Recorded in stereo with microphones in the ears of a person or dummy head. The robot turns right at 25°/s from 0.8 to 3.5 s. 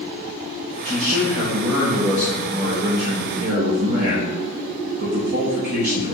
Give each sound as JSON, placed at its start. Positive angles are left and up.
{"t": 0.8, "sound": "a man speaking", "azimuth_deg": 170, "distance_m": 1.0}